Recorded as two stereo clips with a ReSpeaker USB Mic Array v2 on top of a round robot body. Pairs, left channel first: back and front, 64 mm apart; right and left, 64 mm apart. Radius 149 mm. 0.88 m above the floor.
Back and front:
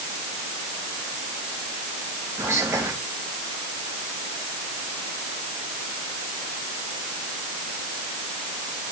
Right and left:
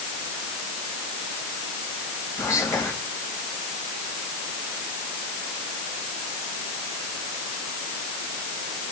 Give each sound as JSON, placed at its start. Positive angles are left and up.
{"t": 2.4, "sound": "whispering", "azimuth_deg": -55, "distance_m": 2.0}